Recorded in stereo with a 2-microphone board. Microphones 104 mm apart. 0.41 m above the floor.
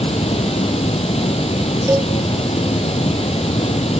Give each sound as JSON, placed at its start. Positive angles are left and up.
{"t": 0.0, "sound": "running water", "side_deg": 75, "distance_m": 2.5}
{"t": 1.9, "sound": "a cowbell", "side_deg": -20, "distance_m": 0.7}